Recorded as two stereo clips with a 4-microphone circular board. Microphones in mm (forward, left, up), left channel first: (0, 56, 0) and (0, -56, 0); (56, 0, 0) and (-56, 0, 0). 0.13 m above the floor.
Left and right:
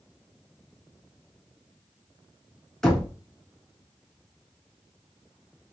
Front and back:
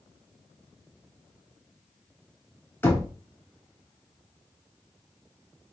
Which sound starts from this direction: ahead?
Knocking, at 2.8 s.